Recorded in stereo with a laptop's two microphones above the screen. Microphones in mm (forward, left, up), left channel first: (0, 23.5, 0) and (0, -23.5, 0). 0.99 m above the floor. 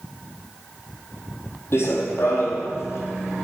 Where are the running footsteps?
60° left (ahead or behind), 1.9 m; by 3.5 s 65° left (ahead or behind), 3.5 m.